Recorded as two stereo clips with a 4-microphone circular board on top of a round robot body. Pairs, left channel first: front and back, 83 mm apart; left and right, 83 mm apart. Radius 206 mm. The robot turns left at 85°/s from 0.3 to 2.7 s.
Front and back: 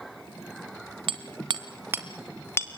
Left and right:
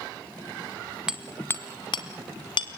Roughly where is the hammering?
Behind.